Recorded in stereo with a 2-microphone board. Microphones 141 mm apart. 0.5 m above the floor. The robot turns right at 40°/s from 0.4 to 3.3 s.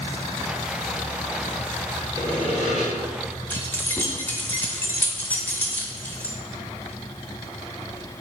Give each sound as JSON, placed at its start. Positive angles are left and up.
{"t": 2.2, "sound": "sawing", "side_deg": -30, "distance_m": 1.6}
{"t": 3.5, "sound": "keys jangling", "side_deg": 15, "distance_m": 0.7}